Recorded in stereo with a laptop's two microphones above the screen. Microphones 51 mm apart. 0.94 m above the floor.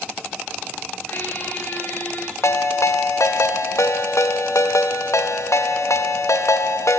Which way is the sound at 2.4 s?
75° left (ahead or behind).